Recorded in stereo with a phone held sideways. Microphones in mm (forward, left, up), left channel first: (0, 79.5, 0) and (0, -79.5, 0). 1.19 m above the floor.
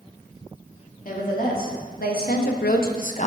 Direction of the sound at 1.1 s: 65° left (ahead or behind).